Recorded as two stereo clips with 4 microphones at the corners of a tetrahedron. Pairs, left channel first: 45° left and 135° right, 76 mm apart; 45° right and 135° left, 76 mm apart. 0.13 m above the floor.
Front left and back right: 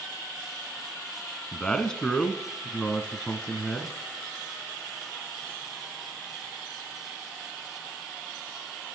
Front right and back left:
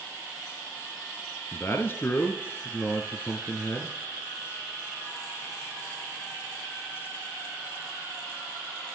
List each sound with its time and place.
1.5 s a man speaking: 25° right, 1.2 m